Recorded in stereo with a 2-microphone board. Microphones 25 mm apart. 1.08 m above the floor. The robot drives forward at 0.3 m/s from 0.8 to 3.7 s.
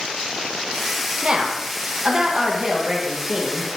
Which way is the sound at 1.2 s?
40° right (ahead or behind).